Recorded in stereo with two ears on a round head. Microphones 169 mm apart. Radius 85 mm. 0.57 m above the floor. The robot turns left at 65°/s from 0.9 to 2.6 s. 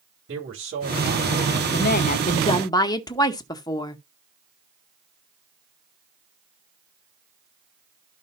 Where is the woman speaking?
85° left, 0.9 m; by 4.0 s 25° left, 0.9 m.